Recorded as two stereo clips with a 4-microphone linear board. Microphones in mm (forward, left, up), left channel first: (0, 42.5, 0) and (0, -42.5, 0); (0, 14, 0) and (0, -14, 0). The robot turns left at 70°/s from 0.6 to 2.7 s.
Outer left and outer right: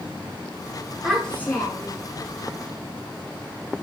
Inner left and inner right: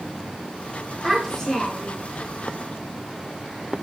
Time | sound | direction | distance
1.0 | a child speaking | 175° right | 4.5 m